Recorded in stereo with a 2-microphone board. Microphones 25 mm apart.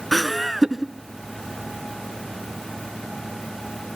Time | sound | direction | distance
0.1 | laughter | 5° left (ahead or behind) | 1.3 m